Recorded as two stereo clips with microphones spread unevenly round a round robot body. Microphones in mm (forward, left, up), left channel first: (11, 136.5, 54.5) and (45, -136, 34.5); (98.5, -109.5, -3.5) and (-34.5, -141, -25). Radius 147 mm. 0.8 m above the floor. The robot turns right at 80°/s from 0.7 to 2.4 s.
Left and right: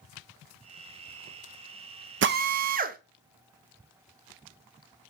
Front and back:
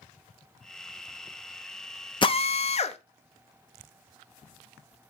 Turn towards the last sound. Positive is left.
turn(degrees=-30)